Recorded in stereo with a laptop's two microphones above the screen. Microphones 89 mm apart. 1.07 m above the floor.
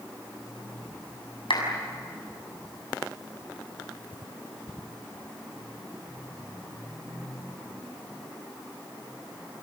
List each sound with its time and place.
1.5 s a clap: 75° left (ahead or behind), 6.5 m